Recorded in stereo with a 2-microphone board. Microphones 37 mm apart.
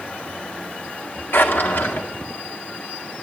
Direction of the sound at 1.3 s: 65° left (ahead or behind).